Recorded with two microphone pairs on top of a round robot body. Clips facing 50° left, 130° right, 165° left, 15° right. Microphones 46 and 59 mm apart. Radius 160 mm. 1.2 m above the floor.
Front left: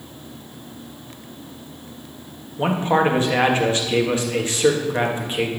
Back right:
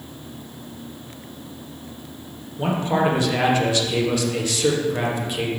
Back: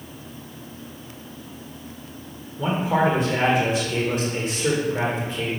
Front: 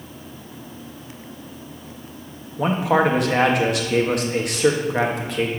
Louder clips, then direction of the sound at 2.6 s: Front left 2 dB, front 3 dB; 5° right.